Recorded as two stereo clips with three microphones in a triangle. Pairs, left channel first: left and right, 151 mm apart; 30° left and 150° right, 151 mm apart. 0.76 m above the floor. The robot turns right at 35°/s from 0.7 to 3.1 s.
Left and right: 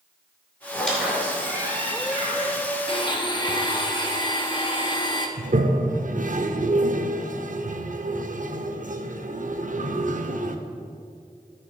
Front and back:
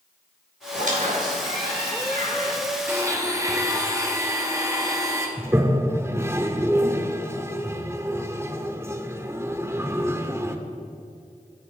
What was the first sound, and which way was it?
A squeak, 170° left.